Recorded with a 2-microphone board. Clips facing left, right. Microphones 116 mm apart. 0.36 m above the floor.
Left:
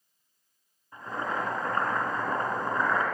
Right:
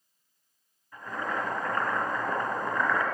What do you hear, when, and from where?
0.9 s boiling: 30° left (ahead or behind), 3.5 m